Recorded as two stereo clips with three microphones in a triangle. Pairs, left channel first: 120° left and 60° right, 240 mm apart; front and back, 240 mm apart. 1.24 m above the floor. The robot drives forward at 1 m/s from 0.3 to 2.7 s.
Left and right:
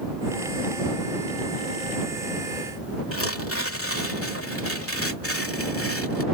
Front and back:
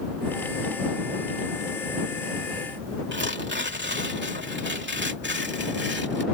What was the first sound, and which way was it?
Tearing paper, 140° left.